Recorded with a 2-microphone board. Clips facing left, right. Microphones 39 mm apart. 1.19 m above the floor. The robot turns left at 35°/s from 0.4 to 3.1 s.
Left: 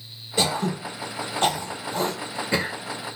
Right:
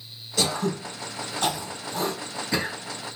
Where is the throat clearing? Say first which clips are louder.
Left 2 dB; 25° left (ahead or behind), 1.0 m; by 2.8 s 30° left (ahead or behind), 1.0 m.